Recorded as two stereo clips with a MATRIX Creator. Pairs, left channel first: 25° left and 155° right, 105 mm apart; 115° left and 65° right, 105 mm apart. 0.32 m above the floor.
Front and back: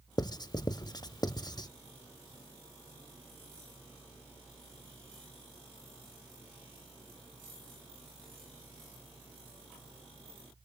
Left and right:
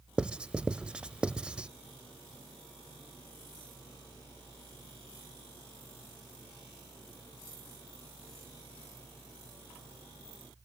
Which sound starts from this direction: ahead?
Writing, at 0.2 s.